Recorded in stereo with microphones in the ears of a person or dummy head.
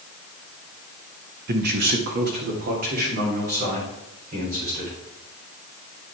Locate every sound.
1.5 s a man speaking: 55° right (ahead or behind), 1.2 m; by 5.0 s 50° right (ahead or behind), 5.5 m